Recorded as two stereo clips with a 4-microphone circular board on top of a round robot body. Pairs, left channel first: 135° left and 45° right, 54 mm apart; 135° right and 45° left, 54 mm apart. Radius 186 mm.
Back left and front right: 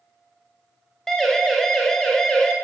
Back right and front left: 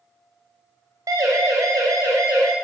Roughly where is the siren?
Ahead left.